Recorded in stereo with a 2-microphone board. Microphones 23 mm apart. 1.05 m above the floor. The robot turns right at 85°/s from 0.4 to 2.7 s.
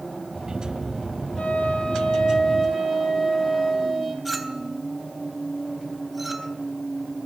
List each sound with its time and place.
1.4 s a flute: 85° left, 7 m; by 4.2 s 160° right, 7 m
4.2 s a clink: centre (ahead or behind), 3.5 m